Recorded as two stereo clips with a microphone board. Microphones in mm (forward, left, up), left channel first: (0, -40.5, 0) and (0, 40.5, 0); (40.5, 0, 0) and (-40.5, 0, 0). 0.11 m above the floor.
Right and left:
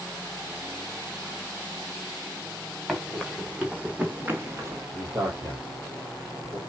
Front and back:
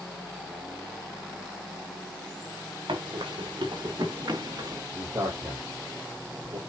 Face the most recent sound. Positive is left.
turn(degrees=140)